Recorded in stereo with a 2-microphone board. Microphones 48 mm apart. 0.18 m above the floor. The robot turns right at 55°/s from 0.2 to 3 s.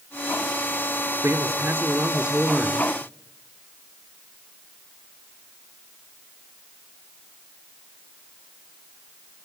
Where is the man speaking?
85° right, 2.5 m; by 2.9 s 10° left, 2.5 m.